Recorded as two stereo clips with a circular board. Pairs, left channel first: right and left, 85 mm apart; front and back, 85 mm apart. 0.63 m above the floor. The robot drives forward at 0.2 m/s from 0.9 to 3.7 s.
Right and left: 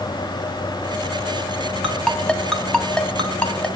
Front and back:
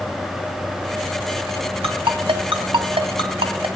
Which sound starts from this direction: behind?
A ringtone, at 1.8 s.